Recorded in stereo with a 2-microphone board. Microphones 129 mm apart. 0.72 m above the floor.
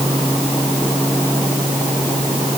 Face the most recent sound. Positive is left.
No sound to turn to.